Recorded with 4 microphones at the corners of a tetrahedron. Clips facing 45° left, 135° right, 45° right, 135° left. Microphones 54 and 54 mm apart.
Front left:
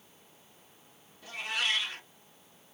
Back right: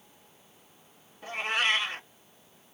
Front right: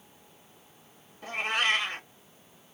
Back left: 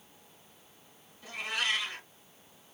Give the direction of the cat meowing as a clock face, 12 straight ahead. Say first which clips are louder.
Back right 5 dB, front right 6 dB; 3 o'clock.